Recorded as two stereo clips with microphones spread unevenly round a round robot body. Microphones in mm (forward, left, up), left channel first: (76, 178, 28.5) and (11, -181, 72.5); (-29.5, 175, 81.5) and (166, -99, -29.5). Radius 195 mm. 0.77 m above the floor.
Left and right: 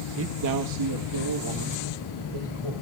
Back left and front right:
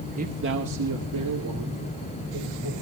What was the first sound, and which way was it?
A man speaking, 55° right.